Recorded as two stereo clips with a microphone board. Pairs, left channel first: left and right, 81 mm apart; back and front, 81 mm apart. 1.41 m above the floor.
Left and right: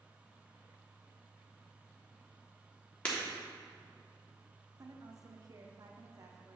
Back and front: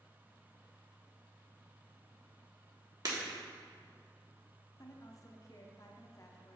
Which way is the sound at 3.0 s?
20° left.